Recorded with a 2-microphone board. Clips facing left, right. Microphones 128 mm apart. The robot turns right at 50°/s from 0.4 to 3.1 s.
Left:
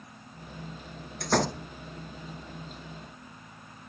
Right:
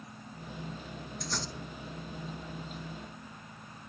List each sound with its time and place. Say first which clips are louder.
1.2 s a door slam: left 15 dB; 65° left (ahead or behind); by 1.6 s 75° left (ahead or behind)